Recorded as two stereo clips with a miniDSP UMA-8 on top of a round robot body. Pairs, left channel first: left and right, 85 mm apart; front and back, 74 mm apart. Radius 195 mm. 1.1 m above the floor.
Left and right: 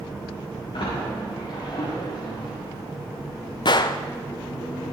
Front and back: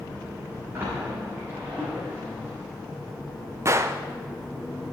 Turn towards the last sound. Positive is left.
turn(degrees=125)